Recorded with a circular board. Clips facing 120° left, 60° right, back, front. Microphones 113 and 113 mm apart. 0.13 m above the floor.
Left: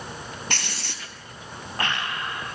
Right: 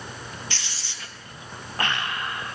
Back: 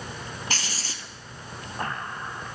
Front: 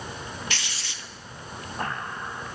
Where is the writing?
135° left, 0.7 m.